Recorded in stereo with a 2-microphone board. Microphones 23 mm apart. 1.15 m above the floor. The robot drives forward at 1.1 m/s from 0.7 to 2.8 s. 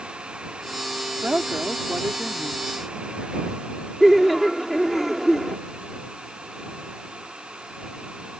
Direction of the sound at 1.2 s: 75° right (ahead or behind).